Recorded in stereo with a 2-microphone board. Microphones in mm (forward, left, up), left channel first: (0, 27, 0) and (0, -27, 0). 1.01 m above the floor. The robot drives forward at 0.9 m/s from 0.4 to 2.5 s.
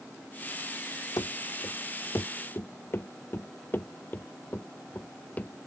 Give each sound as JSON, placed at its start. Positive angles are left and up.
{"t": 1.2, "sound": "running footsteps", "side_deg": 70}